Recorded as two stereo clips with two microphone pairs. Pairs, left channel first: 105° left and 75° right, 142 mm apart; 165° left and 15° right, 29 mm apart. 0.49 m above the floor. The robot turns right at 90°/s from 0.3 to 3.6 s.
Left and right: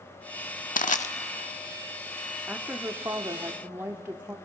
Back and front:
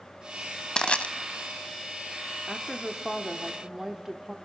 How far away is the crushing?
About 0.6 m.